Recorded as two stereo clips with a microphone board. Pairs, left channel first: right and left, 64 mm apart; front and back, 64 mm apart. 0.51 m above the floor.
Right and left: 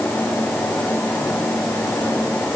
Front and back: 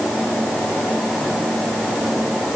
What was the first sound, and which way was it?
Only background noise.